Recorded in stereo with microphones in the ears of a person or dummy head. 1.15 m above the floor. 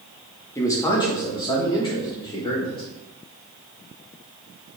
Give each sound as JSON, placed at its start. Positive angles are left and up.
{"t": 0.6, "sound": "a man speaking", "side_deg": 15, "distance_m": 1.9}